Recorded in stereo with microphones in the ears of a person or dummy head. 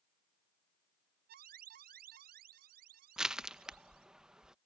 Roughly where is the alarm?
Right.